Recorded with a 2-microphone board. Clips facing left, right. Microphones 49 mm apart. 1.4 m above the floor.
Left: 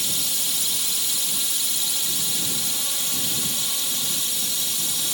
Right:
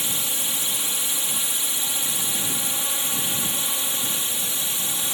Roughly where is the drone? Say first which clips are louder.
Right 1 dB; right.